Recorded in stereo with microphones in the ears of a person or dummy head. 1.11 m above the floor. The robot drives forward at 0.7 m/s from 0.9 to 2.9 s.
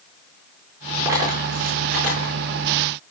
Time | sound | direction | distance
1.1 | a dropped coin | 25° right (ahead or behind) | 6 m